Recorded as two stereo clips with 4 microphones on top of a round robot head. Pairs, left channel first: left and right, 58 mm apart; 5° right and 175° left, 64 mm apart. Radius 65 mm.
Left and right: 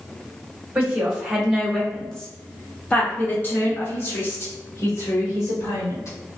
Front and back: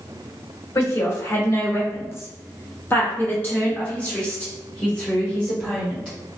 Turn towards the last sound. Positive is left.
turn(degrees=75)